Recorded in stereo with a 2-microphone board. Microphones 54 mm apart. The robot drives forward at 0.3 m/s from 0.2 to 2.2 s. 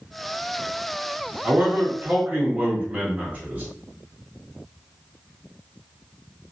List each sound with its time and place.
1.4 s a man speaking: 30° right (ahead or behind), 0.7 m